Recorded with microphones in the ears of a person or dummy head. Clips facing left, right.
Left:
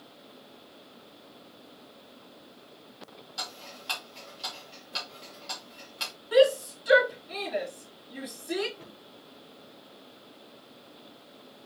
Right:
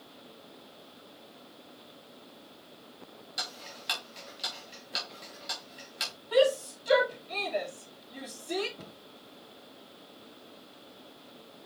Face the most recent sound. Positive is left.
turn(degrees=-65)  # may be behind; listen again after turning